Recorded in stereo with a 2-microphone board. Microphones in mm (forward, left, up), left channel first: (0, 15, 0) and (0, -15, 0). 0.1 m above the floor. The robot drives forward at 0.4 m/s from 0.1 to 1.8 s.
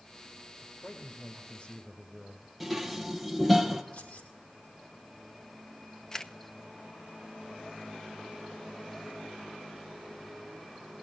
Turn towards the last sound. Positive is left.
turn(degrees=20)  # may be behind; listen again after turning